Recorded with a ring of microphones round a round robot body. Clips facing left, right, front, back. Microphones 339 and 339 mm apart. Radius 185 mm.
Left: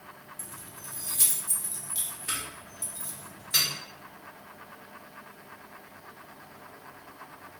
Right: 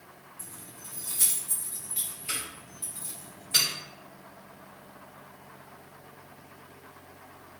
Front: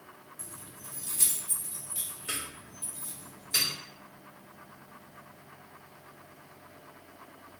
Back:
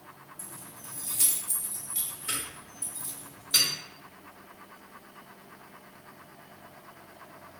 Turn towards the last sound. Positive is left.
turn(degrees=120)